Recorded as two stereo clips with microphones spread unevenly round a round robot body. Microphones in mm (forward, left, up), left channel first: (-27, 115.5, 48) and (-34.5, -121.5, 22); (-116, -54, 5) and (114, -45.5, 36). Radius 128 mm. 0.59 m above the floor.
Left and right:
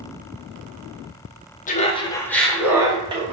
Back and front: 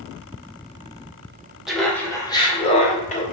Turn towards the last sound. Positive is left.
turn(degrees=-145)